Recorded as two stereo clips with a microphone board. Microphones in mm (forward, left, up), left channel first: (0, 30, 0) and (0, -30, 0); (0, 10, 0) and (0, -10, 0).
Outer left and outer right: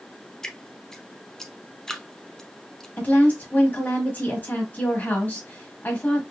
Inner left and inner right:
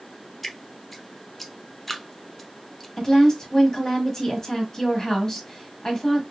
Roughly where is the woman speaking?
Left.